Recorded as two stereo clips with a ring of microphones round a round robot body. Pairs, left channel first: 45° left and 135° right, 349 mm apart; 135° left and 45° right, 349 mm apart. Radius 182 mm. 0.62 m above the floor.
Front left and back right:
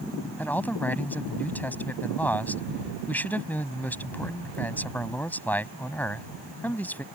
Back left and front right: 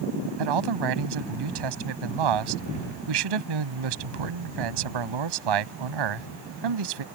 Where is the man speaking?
40° right.